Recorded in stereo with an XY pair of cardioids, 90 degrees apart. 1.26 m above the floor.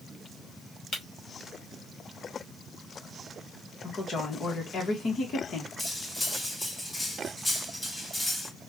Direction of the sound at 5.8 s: 20° left.